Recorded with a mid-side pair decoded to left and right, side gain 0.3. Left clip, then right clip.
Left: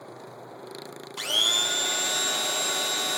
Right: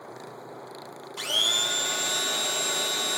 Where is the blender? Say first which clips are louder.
Left 1 dB; 20° left, 0.6 m.